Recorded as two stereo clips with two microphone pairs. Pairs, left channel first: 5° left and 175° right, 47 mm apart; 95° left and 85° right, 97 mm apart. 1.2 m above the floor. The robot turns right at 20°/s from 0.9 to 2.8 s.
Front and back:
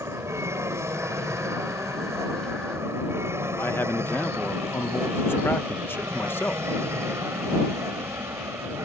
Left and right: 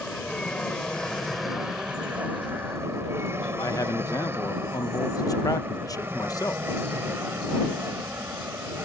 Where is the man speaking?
45° left.